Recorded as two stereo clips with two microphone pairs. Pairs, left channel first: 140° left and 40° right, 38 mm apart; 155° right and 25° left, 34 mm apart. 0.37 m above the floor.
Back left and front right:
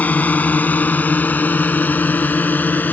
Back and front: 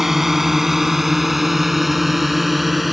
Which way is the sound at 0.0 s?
100° left.